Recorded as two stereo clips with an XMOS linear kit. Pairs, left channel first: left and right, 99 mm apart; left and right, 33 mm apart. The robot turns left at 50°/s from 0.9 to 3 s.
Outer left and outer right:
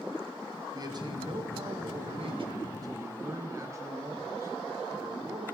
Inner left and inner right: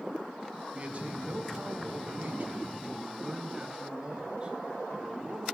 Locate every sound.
0.7 s a man speaking: 45° right, 1.4 m; by 5.5 s 150° right, 1.4 m